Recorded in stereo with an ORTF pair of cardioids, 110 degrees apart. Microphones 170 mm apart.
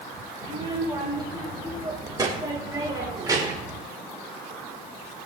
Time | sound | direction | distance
0.4 | a child speaking | 25° right | 4.5 m